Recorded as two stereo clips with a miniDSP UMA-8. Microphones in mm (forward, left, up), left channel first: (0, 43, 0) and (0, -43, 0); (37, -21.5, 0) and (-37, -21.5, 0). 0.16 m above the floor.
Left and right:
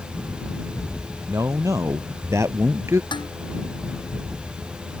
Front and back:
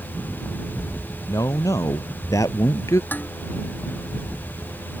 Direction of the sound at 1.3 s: 40° right.